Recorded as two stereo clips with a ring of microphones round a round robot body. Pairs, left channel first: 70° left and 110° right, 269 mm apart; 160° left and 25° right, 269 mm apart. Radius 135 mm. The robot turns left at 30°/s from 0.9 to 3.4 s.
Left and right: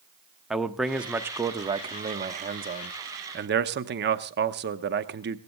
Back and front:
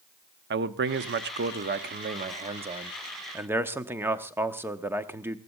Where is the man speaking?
25° right, 0.9 m; by 5.4 s 100° right, 0.9 m.